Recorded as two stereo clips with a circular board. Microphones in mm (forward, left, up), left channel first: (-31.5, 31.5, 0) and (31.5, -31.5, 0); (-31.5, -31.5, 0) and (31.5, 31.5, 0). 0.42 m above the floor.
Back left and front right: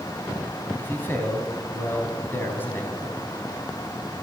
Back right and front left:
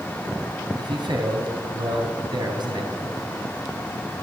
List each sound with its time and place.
0.8 s a man speaking: 70° left, 3.5 m